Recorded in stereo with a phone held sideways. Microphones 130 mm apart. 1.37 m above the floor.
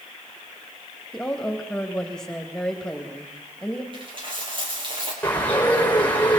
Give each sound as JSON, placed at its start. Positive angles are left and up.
{"t": 1.1, "sound": "a woman speaking", "side_deg": 5, "distance_m": 2.5}
{"t": 3.9, "sound": "a dropped coin", "side_deg": -40, "distance_m": 6.0}
{"t": 5.2, "sound": "a bird", "side_deg": 15, "distance_m": 6.5}